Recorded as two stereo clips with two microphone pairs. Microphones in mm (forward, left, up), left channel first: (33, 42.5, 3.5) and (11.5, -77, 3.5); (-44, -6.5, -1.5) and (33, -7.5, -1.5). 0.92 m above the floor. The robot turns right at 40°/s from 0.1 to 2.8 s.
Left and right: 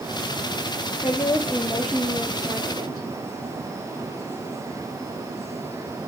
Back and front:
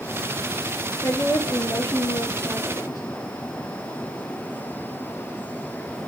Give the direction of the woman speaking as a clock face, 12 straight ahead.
7 o'clock.